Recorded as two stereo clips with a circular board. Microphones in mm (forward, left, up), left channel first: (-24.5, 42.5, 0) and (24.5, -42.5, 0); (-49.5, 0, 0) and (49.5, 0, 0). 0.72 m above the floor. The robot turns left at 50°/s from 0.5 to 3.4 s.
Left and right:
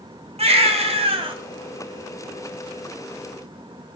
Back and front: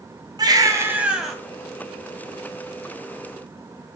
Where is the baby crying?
50° right, 3 m; by 1.4 s 95° right, 3 m.